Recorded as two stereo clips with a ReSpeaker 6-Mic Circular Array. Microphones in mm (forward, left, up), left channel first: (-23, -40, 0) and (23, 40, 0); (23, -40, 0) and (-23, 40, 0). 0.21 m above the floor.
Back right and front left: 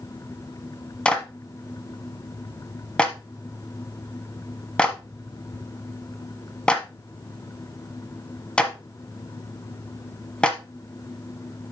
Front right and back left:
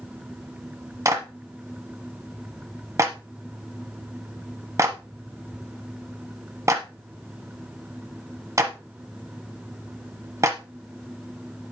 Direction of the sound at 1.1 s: 165° left.